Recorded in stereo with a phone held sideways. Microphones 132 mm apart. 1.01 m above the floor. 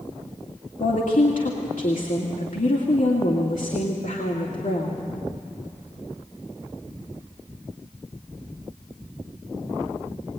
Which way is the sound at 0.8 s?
80° left.